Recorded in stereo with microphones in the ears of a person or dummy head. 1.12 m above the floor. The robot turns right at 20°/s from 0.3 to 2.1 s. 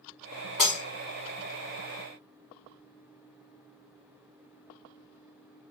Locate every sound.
0.6 s breaking glass: centre (ahead or behind), 1.0 m; by 0.8 s 5° right (ahead or behind), 1.0 m